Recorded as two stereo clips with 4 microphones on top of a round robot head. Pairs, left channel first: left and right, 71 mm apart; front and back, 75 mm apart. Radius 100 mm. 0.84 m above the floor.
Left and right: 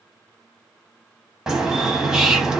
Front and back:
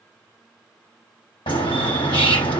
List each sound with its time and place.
1.5 s a bird: 10° right, 1.0 m